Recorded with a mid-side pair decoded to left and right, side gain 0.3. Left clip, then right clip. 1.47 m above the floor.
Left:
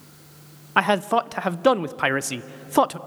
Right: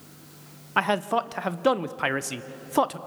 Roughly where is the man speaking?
Ahead left.